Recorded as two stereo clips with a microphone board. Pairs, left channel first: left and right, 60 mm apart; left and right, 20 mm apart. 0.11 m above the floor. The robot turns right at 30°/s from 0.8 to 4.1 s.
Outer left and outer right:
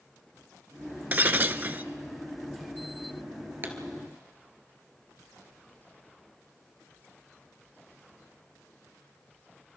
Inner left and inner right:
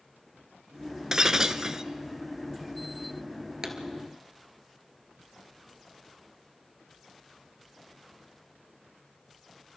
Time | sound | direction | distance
1.1 | breaking glass | 30° right (ahead or behind) | 0.6 m
3.6 | a pop | 35° right (ahead or behind) | 1.9 m